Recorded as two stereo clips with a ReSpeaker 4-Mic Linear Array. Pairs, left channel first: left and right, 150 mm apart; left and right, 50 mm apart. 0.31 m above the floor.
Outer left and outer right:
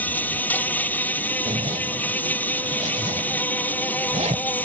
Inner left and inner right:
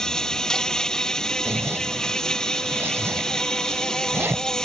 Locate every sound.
0.0 s an insect: 10° left (ahead or behind)
1.4 s a zipper: 45° right (ahead or behind)